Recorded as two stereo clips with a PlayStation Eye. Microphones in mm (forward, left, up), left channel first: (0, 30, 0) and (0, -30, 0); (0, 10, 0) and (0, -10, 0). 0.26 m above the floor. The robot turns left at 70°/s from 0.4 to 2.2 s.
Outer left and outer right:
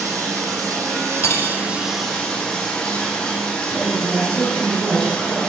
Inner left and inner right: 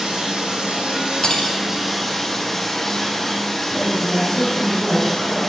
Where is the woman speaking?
55° right (ahead or behind), 5.5 m.